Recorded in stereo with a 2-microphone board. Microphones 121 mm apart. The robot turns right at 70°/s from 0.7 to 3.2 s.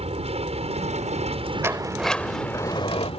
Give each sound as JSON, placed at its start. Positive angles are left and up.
{"t": 0.0, "sound": "an aircraft", "azimuth_deg": -110}
{"t": 1.6, "sound": "a sliding door", "azimuth_deg": -25}